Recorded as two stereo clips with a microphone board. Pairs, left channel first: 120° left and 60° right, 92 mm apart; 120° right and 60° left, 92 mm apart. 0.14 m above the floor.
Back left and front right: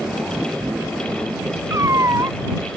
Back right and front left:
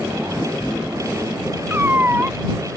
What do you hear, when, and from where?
1.7 s a cat meowing: 5° right